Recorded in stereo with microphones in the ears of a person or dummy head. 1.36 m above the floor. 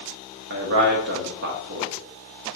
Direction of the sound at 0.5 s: 60° right (ahead or behind).